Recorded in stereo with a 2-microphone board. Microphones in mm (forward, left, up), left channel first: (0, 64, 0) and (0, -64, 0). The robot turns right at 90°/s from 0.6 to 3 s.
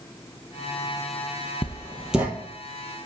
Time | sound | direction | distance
1.6 | writing | 40° left (ahead or behind) | 1.5 m